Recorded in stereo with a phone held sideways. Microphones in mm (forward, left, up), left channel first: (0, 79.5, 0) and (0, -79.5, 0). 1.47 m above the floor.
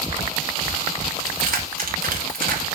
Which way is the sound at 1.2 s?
60° right (ahead or behind).